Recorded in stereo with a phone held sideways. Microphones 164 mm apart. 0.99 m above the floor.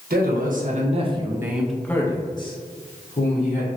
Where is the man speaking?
65° right (ahead or behind), 0.9 m; by 3.8 s 50° left (ahead or behind), 1.4 m.